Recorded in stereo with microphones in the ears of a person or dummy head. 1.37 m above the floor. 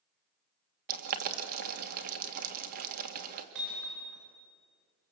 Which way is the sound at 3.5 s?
60° right (ahead or behind).